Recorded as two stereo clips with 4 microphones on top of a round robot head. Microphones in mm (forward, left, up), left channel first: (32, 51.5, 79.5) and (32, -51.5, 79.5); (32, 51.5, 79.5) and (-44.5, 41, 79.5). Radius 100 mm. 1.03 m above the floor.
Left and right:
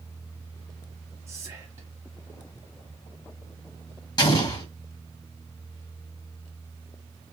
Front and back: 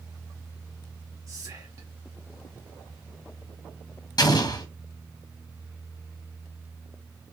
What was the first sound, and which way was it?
Whispering, 145° right.